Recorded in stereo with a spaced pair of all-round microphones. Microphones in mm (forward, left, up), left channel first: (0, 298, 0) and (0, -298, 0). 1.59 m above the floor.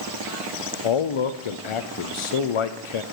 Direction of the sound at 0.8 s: 60° left (ahead or behind).